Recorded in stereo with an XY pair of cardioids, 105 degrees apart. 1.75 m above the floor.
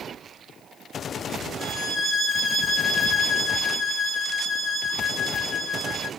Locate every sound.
1.6 s a violin: 15° right, 3 m